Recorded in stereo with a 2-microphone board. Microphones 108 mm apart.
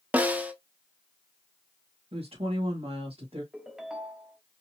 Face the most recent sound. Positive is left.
turn(degrees=-5)  # may be behind; listen again after turning